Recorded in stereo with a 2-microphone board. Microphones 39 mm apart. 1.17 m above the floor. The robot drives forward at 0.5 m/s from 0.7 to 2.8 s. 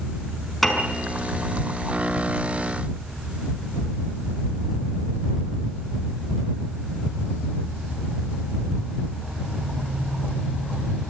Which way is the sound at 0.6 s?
5° left (ahead or behind).